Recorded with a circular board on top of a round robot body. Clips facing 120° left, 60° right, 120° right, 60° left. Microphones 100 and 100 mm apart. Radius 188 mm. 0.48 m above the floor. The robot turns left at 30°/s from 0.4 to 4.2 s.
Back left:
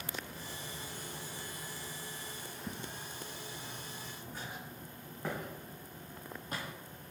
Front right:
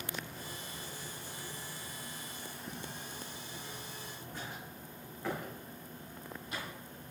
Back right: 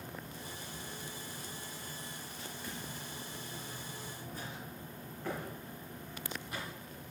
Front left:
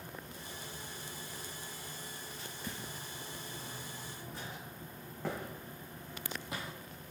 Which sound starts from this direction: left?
Footsteps, at 2.7 s.